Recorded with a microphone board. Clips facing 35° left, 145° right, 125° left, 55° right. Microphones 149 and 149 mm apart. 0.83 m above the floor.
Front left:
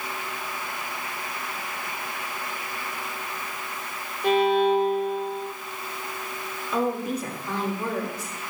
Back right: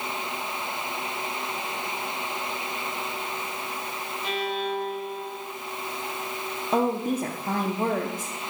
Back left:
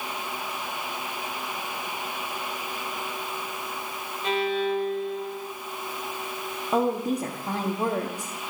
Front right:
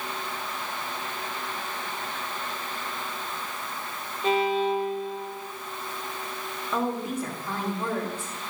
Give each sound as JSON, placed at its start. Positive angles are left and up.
{"t": 4.2, "sound": "a violin", "azimuth_deg": -5, "distance_m": 1.2}
{"t": 6.7, "sound": "a woman speaking", "azimuth_deg": 175, "distance_m": 1.5}